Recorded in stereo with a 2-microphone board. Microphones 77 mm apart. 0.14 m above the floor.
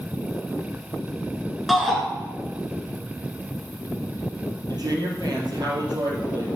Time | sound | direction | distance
1.7 | a shout | centre (ahead or behind) | 1.9 m
4.7 | a woman speaking | 65° right (ahead or behind) | 3.5 m